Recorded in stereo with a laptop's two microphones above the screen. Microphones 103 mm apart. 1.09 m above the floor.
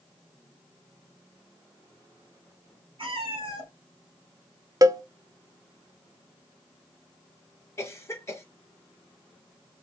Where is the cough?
30° left (ahead or behind), 1.2 m.